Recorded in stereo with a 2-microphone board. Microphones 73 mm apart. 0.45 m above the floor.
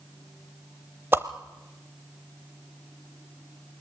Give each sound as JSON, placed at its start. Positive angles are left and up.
{"t": 1.1, "sound": "a whoosh", "side_deg": -30, "distance_m": 0.9}